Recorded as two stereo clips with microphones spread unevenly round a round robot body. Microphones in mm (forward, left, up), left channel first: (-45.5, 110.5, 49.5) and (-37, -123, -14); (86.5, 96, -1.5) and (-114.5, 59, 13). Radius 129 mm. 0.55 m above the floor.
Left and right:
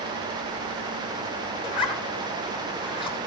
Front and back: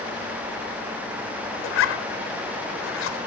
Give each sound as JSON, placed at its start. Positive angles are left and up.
{"t": 1.6, "sound": "a zipper", "azimuth_deg": 15, "distance_m": 1.4}